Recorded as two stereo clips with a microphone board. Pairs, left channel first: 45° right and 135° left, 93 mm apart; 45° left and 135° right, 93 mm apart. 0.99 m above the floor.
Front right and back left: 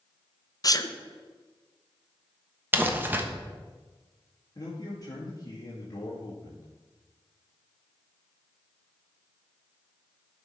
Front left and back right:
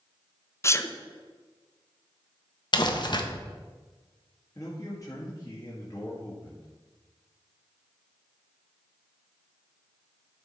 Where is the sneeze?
10° right, 0.7 m.